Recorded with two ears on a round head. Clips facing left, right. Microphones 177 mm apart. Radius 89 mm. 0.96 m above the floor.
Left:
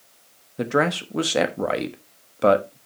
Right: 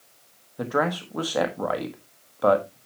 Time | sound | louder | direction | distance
0.6 | a man speaking | left 3 dB | 30° left (ahead or behind) | 1.1 m